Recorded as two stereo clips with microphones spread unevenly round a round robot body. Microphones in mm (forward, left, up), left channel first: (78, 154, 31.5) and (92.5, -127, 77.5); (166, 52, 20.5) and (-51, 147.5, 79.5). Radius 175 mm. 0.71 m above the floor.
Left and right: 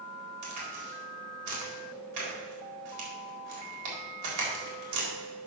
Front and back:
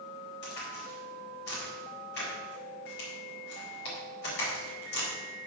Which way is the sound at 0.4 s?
70° right.